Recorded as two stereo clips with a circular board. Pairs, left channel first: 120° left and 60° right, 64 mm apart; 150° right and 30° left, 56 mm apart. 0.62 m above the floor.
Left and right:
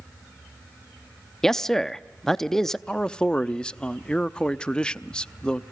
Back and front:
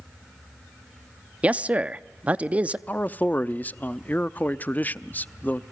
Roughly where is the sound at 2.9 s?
Behind.